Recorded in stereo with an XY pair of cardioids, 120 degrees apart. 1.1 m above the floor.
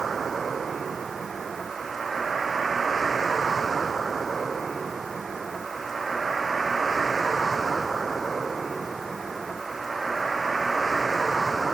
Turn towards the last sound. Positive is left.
turn(degrees=-20)